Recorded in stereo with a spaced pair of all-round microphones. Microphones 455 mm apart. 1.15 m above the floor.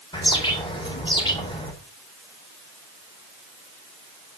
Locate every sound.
0.1 s a bird: 10° left (ahead or behind), 4.5 m